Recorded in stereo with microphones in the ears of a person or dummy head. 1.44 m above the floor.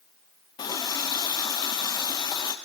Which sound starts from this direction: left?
A running tap, at 0.6 s.